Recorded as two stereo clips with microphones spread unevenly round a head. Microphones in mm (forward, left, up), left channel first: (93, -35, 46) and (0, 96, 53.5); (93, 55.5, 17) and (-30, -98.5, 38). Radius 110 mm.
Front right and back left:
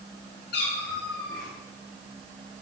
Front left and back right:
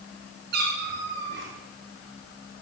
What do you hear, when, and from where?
0.5 s a cat meowing: 95° right, 4 m; by 1.5 s 105° right, 3 m